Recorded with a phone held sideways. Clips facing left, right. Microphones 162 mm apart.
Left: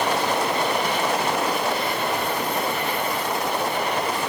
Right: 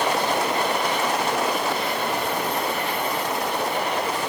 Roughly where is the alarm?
No alarm in this recording.